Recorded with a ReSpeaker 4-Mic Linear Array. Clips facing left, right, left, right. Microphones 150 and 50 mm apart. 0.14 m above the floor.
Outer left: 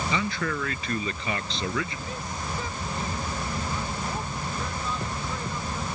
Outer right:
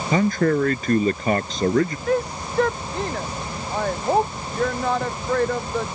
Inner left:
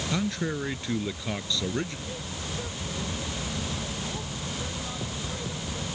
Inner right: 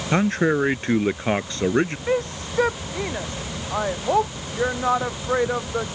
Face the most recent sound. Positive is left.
turn(degrees=-70)  # may be behind; listen again after turning